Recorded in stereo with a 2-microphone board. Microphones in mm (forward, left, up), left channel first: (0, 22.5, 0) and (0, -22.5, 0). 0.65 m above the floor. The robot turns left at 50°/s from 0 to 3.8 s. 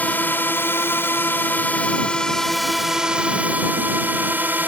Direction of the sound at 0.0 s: 135° left.